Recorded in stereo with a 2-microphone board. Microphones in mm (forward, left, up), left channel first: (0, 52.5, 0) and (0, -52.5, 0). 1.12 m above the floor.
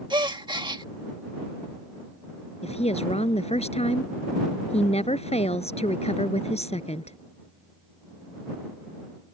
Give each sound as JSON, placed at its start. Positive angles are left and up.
{"t": 0.1, "sound": "a gasp", "side_deg": -45}
{"t": 2.6, "sound": "a woman speaking", "side_deg": 85}